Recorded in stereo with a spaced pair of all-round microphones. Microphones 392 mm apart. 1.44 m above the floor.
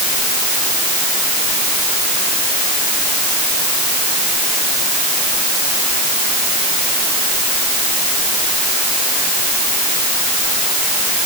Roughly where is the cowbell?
I don't hear a cowbell.